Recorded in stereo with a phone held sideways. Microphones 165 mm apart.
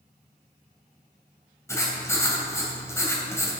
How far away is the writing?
About 2.5 m.